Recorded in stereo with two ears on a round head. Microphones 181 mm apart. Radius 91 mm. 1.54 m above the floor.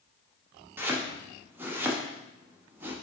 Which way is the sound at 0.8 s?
10° right (ahead or behind).